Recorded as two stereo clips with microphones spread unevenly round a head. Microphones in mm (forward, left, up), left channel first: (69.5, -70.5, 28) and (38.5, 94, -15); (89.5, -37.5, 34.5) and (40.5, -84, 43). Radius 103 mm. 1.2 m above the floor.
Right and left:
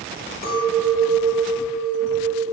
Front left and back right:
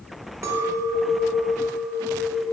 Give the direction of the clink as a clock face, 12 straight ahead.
4 o'clock.